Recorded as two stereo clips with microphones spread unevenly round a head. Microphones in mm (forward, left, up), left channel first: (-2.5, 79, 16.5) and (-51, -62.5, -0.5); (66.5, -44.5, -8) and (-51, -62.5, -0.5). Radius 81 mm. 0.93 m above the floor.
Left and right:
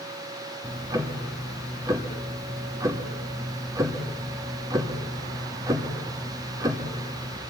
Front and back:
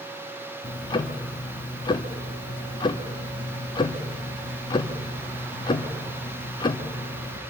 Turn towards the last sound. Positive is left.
turn(degrees=-40)